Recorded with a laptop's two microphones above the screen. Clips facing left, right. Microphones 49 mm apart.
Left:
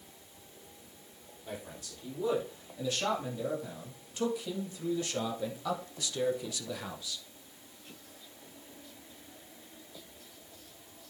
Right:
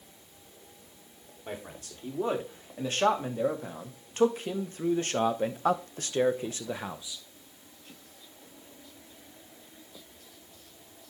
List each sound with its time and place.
1.5 s a man speaking: 45° right (ahead or behind), 3 m; by 7.2 s 15° right (ahead or behind), 0.8 m